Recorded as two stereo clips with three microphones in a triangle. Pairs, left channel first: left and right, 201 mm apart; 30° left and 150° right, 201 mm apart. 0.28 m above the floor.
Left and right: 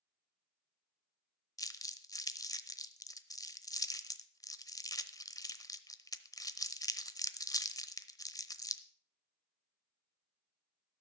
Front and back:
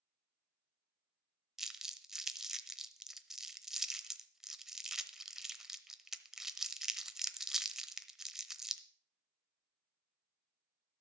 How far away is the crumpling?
About 0.8 m.